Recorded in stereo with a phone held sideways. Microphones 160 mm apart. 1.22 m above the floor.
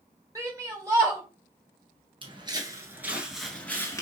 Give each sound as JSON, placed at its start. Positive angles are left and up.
{"t": 0.3, "sound": "a shout", "side_deg": -20, "distance_m": 2.5}
{"t": 2.2, "sound": "footsteps", "side_deg": -35, "distance_m": 1.4}